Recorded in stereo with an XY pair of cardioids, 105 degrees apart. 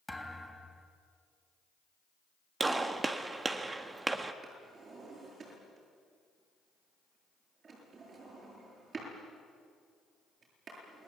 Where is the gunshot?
25° right, 1.5 m.